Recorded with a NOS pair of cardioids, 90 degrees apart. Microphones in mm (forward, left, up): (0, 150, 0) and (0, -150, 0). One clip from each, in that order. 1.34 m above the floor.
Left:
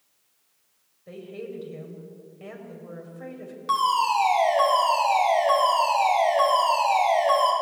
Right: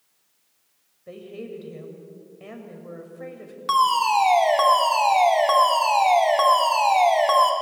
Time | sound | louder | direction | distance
1.1 | a woman speaking | even | 10° right | 7 m
3.7 | a fire alarm | right 3 dB | 40° right | 5.5 m